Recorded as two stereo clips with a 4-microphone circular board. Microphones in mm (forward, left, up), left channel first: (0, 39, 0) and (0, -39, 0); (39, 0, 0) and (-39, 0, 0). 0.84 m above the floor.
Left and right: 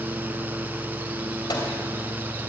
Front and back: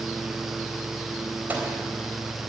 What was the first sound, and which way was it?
A microwave, 115° left.